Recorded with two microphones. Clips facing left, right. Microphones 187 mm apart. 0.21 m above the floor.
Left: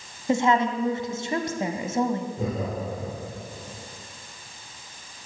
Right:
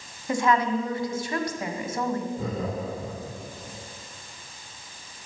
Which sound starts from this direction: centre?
Laughter, at 2.4 s.